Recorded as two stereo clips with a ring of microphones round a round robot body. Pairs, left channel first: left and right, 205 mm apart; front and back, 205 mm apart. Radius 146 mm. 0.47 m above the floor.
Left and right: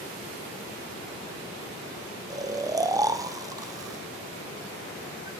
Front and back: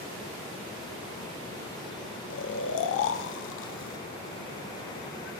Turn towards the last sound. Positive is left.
turn(degrees=-15)